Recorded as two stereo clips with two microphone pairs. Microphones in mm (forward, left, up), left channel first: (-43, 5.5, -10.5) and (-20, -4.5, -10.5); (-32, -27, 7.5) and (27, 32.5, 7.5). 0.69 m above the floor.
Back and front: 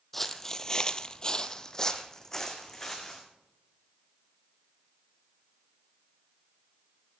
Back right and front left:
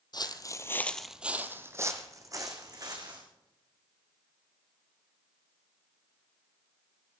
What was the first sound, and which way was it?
Footsteps, 130° right.